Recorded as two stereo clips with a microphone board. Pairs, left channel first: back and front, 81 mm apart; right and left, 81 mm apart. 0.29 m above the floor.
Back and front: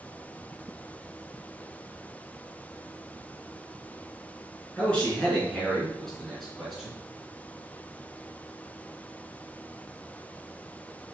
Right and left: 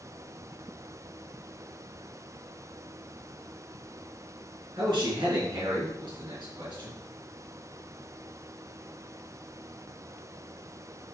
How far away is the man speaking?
About 3.5 m.